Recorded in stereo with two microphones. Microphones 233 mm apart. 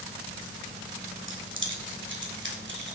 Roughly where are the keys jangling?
Right.